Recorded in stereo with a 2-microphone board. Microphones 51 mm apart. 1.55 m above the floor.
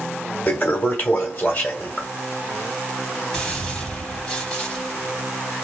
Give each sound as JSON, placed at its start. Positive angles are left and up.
{"t": 0.5, "sound": "a toilet flushing", "side_deg": 35, "distance_m": 1.4}
{"t": 3.3, "sound": "a gunshot", "side_deg": 10, "distance_m": 2.0}